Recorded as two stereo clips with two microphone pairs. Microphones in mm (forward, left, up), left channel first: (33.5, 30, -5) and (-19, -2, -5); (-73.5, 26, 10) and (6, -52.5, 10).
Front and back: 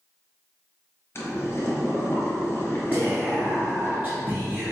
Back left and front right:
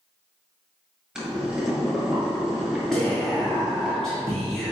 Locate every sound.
1.1 s boiling: 35° left, 1.1 m
2.9 s whispering: 145° right, 1.3 m